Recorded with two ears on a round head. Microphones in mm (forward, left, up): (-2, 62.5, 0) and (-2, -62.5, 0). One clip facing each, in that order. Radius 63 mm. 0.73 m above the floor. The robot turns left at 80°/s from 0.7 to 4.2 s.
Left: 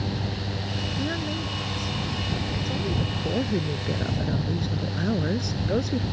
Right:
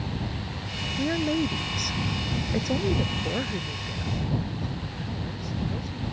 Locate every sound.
1.0 s a woman speaking: 5° right; by 6.0 s 95° left